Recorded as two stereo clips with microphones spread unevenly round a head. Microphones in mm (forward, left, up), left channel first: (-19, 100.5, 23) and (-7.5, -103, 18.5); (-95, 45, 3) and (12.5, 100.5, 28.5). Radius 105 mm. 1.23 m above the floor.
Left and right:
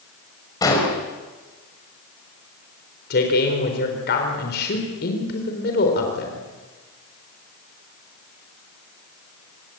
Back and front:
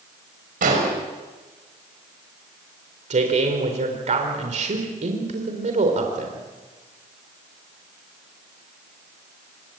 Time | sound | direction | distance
0.6 | an explosion | 20° left | 6 m
3.1 | a man speaking | 50° left | 4 m